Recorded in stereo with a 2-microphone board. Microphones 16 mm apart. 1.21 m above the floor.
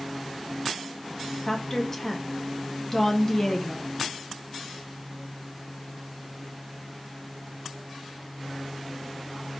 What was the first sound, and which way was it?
A woman speaking, 25° left (ahead or behind).